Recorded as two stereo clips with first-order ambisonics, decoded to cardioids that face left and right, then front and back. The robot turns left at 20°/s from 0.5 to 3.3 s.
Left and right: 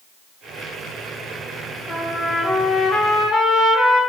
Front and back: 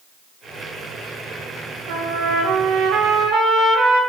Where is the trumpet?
170° left, 0.5 m; by 4.0 s 140° left, 0.5 m.